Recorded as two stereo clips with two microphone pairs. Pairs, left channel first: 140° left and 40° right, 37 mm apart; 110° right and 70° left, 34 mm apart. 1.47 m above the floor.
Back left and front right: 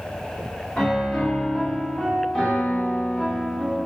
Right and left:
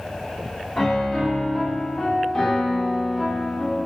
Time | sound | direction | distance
0.8 | a piano | 175° left | 0.8 m